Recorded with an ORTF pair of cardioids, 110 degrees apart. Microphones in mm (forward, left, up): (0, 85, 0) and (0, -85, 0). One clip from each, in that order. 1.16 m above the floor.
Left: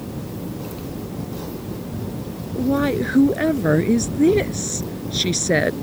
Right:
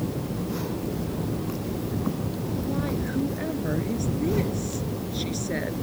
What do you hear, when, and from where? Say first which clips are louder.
2.5 s a woman speaking: left 12 dB; 70° left